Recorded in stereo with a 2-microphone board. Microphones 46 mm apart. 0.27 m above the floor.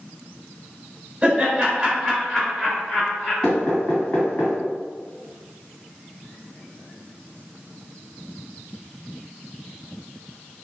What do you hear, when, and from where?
1.2 s laughter: 25° right (ahead or behind), 1.7 m; by 3.3 s 30° left (ahead or behind), 2 m
3.4 s knocking: 25° left (ahead or behind), 1.6 m